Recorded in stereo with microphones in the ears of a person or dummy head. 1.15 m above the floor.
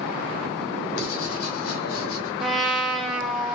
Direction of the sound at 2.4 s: Centre (ahead or behind).